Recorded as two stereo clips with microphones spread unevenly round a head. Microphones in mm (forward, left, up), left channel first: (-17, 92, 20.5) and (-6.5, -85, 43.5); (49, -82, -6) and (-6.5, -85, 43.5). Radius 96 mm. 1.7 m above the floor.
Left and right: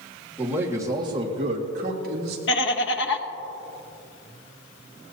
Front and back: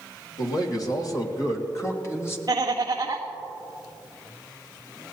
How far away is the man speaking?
About 2 m.